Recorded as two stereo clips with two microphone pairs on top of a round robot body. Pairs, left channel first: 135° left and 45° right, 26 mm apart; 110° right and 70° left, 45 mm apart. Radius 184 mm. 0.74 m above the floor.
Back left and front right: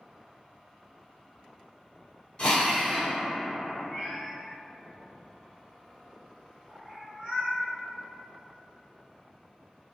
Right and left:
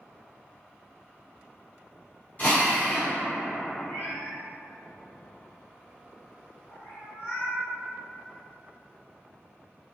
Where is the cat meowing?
115° right, 1.1 m.